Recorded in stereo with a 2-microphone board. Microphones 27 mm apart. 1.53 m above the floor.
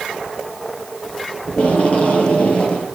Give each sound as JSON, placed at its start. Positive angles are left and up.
{"t": 1.5, "sound": "tape being pulled", "side_deg": 50, "distance_m": 8.0}